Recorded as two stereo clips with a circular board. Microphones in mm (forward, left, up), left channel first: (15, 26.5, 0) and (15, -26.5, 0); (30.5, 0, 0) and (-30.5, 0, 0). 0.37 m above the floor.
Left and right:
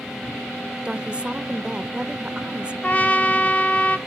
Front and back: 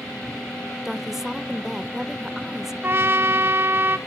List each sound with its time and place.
0.8 s a woman speaking: 105° right, 0.8 m
2.8 s a trumpet: 145° left, 1.1 m